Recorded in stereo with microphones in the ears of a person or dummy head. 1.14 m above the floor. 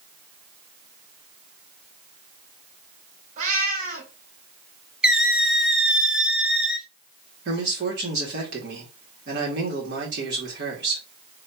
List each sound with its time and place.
3.4 s a cat meowing: 40° right (ahead or behind), 1.4 m
5.0 s a squeak: 5° right (ahead or behind), 0.6 m
7.5 s a man speaking: 55° right (ahead or behind), 2.5 m